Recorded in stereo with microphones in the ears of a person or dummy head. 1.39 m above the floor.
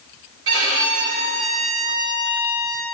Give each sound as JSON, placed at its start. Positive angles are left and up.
{"t": 0.5, "sound": "a violin", "side_deg": -70, "distance_m": 3.0}